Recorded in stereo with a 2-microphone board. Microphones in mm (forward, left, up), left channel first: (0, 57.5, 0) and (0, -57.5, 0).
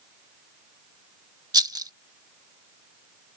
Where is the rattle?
35° right (ahead or behind).